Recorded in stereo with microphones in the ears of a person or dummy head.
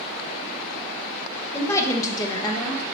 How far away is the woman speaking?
About 0.9 m.